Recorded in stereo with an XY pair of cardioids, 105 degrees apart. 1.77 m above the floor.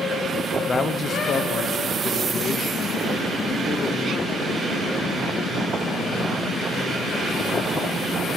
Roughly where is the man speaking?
Ahead left.